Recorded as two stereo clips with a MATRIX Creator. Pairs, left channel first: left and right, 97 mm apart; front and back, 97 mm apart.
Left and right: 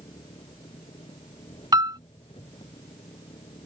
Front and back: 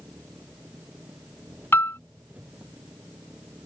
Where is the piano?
60° right.